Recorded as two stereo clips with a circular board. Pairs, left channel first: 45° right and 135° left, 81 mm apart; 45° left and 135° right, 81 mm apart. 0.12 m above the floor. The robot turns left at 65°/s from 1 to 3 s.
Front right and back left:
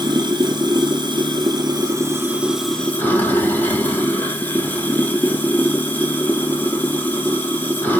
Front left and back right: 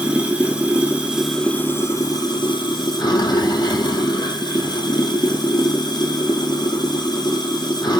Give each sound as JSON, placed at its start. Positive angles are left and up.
{"t": 0.0, "sound": "running water", "azimuth_deg": 150, "distance_m": 2.0}